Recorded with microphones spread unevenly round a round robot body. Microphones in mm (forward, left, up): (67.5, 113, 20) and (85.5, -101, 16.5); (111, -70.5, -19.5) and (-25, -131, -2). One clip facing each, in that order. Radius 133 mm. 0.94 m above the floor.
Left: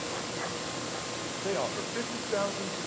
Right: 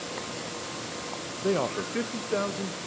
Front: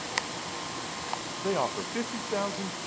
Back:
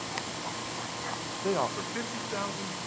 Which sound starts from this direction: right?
A man speaking, at 1.4 s.